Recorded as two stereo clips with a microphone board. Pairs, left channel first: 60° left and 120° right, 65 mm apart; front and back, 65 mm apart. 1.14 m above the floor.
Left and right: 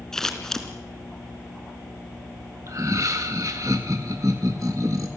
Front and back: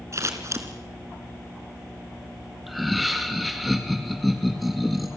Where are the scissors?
140° left, 3 m.